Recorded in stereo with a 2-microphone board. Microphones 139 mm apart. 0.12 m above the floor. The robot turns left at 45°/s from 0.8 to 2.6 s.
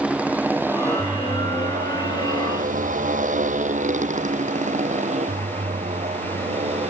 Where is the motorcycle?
10° right (ahead or behind); by 6.9 s 55° right (ahead or behind).